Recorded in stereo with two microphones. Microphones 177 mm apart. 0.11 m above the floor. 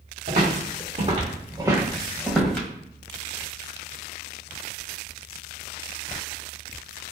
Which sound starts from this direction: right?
Footsteps, at 0.3 s.